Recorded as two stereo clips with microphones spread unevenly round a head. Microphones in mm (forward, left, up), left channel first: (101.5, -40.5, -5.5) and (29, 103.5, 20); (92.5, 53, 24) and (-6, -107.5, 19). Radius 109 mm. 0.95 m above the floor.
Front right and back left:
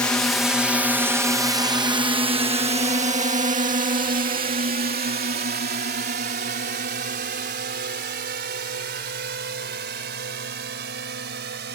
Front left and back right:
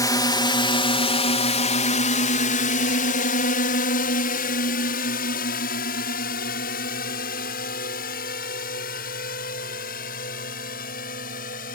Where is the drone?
Straight ahead; by 11.8 s 110° left.